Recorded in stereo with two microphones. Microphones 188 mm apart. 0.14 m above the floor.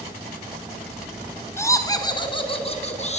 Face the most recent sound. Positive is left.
turn(degrees=40)  # may be behind; listen again after turning